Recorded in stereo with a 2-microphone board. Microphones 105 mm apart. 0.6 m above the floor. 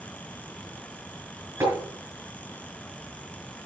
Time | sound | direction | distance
1.6 | tapping | 25° right (ahead or behind) | 5.5 m